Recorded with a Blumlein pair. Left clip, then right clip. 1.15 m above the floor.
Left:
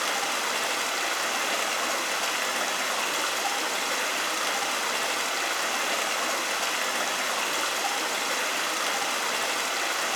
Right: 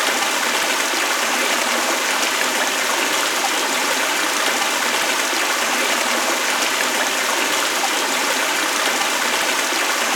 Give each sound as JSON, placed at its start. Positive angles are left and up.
{"t": 0.0, "sound": "running water", "azimuth_deg": -45, "distance_m": 1.2}